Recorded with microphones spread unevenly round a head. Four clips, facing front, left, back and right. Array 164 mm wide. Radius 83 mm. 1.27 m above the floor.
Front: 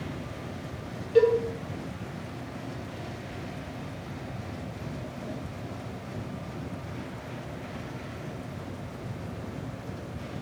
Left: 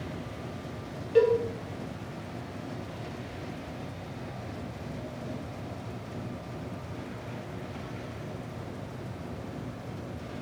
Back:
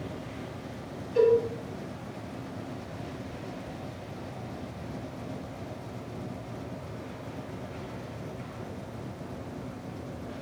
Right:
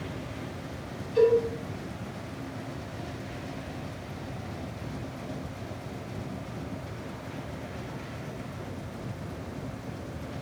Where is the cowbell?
50° left, 1.4 m.